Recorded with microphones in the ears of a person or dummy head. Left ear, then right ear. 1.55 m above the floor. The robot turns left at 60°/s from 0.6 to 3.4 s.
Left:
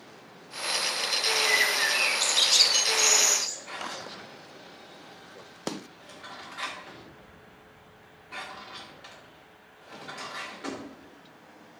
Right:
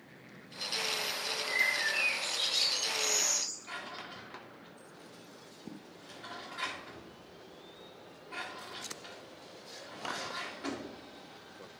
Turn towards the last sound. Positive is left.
turn(degrees=5)  # may be behind; listen again after turning